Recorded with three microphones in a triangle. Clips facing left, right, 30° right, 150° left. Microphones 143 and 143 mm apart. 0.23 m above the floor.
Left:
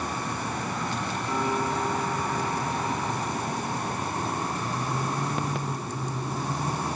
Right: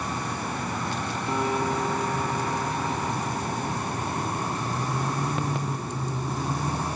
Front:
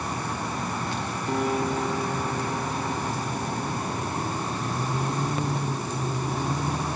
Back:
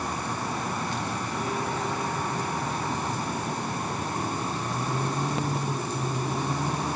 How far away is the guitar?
About 7 m.